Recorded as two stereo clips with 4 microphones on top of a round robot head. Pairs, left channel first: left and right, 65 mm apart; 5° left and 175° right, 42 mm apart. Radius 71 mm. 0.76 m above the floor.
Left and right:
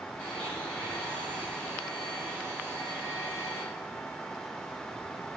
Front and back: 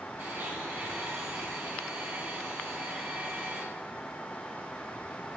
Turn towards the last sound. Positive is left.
turn(degrees=165)